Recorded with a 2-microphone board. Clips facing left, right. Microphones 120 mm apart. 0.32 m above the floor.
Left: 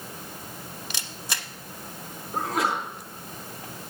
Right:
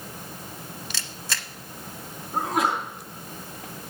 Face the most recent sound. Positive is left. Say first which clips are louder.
# right 2 dB
turn(degrees=-20)  # may be behind; listen again after turning